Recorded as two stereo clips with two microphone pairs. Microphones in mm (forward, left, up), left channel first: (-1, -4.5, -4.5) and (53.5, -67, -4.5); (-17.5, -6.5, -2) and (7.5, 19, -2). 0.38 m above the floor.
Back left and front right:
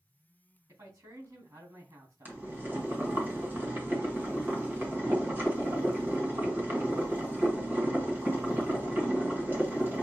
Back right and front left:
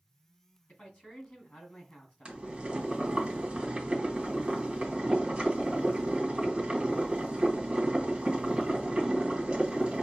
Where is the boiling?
Straight ahead, 1.6 m.